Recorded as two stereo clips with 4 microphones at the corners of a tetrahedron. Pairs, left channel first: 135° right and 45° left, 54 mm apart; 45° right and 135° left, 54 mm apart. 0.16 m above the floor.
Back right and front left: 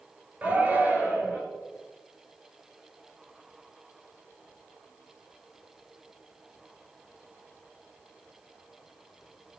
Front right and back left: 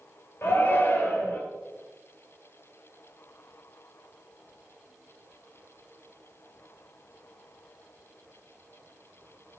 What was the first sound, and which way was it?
A shout, 15° right.